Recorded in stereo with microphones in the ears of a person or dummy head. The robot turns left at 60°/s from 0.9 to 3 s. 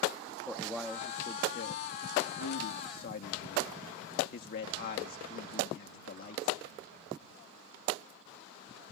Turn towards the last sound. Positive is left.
turn(degrees=50)